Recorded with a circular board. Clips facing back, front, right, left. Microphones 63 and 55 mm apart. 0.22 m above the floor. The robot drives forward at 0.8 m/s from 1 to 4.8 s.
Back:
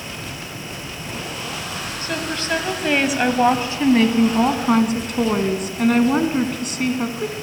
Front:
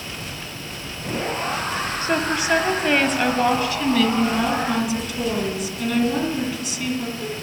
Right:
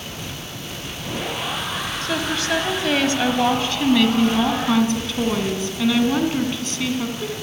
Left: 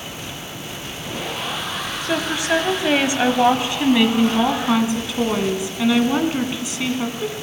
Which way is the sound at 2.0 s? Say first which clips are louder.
Front 4 dB, left 2 dB; 30° left.